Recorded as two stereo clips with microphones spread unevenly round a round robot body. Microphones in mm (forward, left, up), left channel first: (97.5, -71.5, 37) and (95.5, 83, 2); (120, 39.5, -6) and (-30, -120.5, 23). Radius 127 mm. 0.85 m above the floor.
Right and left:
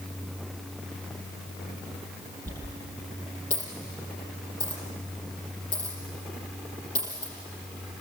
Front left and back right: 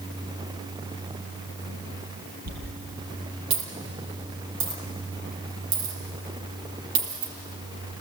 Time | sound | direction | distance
2.5 | a dropped coin | 150° right | 5 m